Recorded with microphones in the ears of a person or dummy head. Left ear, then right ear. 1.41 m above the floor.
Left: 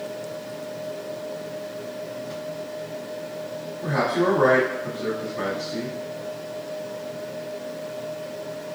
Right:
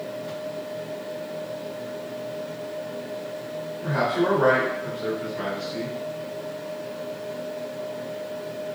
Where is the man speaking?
25° left (ahead or behind), 1.0 m.